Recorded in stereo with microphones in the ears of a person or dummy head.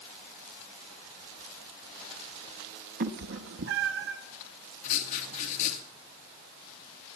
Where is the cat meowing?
60° right (ahead or behind), 0.9 m; by 4.2 s 70° right (ahead or behind), 1.7 m.